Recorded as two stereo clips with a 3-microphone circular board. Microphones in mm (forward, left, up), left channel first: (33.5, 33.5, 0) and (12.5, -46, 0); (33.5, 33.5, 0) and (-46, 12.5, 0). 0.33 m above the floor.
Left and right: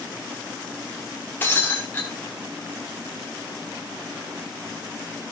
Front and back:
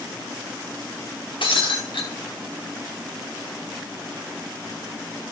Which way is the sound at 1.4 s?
10° left.